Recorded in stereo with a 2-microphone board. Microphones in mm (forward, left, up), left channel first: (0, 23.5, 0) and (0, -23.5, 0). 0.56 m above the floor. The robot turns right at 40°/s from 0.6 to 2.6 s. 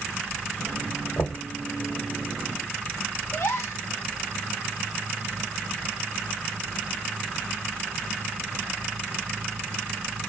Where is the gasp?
75° left (ahead or behind), 0.9 m.